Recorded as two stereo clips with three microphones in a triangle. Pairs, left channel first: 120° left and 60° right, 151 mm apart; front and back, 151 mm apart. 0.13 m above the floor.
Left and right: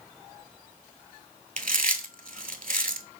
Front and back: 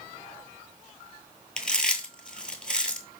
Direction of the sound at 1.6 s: 85° right.